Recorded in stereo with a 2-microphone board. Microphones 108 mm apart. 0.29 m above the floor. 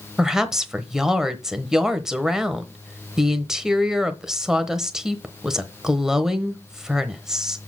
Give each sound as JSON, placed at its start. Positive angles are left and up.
{"t": 0.2, "sound": "a woman speaking", "side_deg": -5, "distance_m": 1.0}